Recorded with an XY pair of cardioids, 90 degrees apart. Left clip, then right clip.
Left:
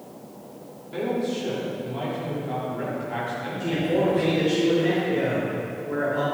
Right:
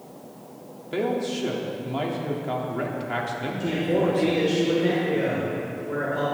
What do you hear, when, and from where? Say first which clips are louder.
0.9 s a man speaking: right 1 dB; 70° right, 3 m
3.6 s a man speaking: even; 25° right, 5 m